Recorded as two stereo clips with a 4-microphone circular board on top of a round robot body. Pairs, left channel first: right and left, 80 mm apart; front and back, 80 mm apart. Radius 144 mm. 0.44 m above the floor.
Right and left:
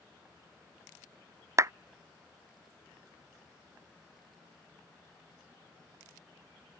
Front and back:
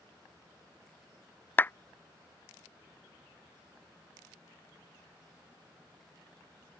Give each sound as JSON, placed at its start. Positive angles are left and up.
{"t": 1.6, "sound": "a clap", "azimuth_deg": 55}